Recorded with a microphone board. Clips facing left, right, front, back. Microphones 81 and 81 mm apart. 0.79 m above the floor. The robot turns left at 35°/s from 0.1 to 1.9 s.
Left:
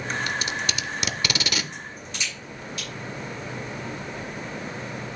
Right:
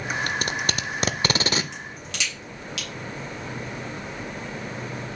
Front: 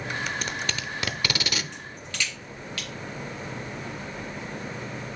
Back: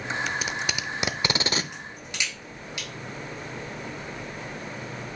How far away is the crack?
About 3.5 m.